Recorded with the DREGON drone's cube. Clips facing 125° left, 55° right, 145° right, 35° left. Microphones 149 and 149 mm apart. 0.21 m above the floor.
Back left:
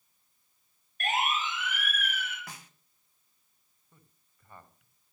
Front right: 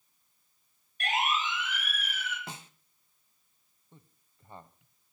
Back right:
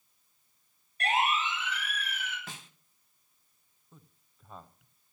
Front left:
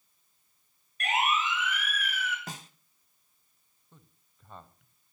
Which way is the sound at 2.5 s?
Straight ahead.